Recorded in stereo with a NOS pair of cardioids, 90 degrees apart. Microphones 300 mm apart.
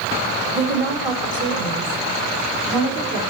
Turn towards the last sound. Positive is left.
turn(degrees=-80)